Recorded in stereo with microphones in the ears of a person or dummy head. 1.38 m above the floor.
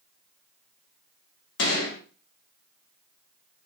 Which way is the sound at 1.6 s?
70° left (ahead or behind).